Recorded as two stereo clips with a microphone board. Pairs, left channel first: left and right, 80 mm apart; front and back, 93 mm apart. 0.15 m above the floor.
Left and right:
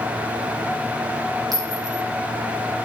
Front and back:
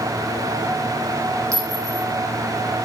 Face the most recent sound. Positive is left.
turn(degrees=-125)